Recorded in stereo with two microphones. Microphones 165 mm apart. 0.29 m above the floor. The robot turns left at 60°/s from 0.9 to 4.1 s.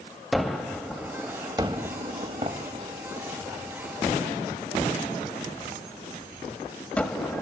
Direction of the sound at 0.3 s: Centre (ahead or behind).